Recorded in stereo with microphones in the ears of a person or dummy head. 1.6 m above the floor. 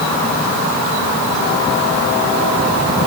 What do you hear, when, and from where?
Only background noise.